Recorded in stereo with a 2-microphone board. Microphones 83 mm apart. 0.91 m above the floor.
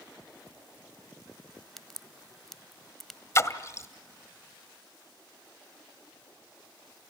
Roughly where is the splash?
Left.